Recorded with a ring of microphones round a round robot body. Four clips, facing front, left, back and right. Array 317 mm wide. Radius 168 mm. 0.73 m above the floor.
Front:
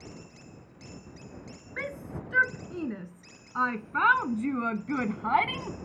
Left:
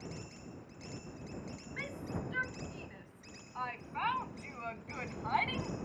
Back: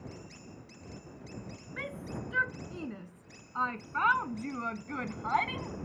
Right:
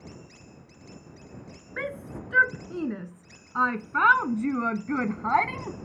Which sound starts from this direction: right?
A shout, at 1.8 s.